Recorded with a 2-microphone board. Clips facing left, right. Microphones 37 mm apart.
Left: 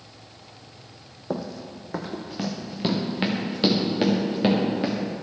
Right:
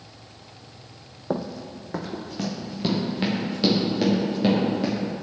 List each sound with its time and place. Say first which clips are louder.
1.3 s running footsteps: right 2 dB; 15° right (ahead or behind), 1.0 m; by 5.0 s 25° left (ahead or behind), 4.5 m